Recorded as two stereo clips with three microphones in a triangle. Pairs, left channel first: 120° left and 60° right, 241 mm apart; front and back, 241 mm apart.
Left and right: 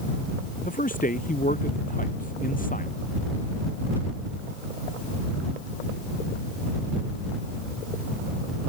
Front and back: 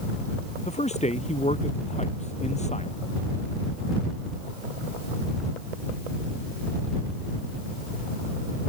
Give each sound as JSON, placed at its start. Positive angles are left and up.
{"t": 0.7, "sound": "a man speaking", "azimuth_deg": 65}